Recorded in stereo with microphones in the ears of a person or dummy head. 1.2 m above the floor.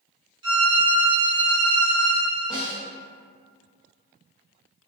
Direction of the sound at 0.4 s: 25° right (ahead or behind).